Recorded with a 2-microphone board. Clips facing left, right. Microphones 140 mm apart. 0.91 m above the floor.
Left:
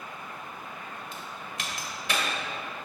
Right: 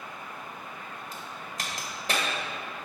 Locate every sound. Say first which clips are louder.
1.1 s a crack: even; 40° right (ahead or behind), 1.6 m